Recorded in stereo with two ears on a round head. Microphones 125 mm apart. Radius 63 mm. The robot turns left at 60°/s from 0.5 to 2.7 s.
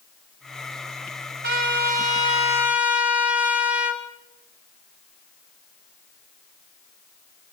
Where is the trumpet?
90° right, 2.5 m; by 4.0 s 165° right, 2.5 m.